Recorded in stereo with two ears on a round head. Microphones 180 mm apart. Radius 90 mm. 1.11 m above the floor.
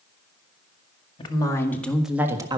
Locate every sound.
1.2 s a woman speaking: 20° left (ahead or behind), 2 m; by 2.6 s 20° right (ahead or behind), 1.5 m